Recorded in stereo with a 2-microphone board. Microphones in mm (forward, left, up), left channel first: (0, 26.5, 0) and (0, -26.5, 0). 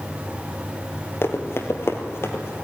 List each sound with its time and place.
1.2 s running footsteps: 55° left (ahead or behind), 2.5 m; by 2.5 s 50° left (ahead or behind), 2.5 m